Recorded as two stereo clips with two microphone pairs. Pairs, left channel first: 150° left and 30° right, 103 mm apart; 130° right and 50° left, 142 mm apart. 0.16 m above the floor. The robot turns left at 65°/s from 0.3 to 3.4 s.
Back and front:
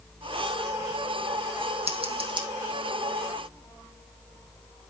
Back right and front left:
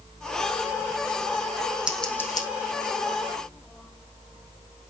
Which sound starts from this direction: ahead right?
Scissors, at 1.9 s.